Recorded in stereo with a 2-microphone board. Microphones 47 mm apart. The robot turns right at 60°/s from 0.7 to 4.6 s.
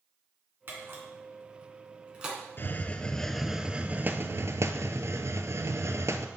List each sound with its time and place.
0.7 s a camera shutter: 50° right (ahead or behind), 2.5 m; by 2.4 s 10° right (ahead or behind), 2.5 m
2.6 s a hiss: 135° left, 0.7 m; by 6.3 s 105° right, 0.7 m